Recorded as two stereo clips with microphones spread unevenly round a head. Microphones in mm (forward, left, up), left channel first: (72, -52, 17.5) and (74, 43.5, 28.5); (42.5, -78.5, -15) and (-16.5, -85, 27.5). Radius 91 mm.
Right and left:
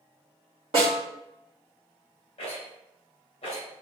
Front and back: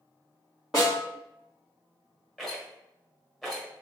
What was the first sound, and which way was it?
A snare drum, 120° left.